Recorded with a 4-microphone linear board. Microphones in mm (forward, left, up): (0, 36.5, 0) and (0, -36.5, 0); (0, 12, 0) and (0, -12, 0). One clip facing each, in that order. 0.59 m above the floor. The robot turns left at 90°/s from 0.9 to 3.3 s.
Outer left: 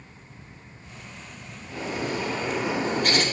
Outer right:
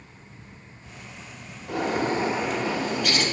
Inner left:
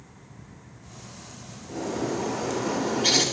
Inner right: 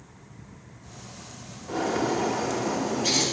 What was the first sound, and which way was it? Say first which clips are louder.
A bird: outer right 5 dB, inner right 3 dB; 105° right.